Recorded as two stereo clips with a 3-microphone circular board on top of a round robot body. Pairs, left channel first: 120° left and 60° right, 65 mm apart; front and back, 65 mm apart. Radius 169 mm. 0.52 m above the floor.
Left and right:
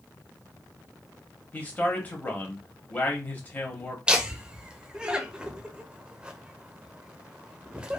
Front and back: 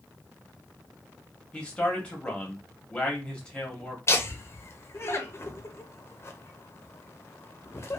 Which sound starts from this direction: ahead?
Laughter, at 4.1 s.